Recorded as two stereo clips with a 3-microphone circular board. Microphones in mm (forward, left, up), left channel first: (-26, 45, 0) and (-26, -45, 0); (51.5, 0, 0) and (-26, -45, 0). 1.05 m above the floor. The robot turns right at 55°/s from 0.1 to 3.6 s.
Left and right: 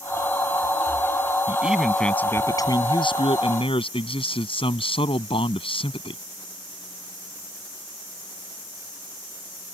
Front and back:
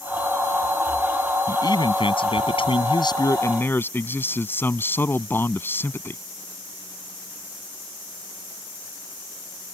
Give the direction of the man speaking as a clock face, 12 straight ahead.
1 o'clock.